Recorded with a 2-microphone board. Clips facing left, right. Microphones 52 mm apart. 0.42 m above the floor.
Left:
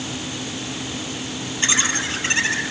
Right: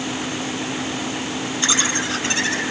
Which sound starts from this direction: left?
Laughter, at 1.6 s.